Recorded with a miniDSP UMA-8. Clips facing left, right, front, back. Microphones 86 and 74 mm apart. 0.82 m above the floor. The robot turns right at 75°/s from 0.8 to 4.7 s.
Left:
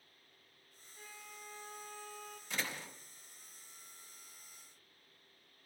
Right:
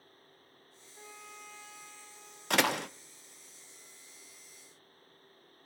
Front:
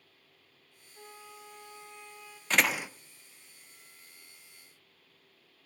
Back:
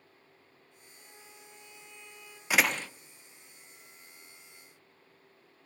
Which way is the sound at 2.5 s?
100° right.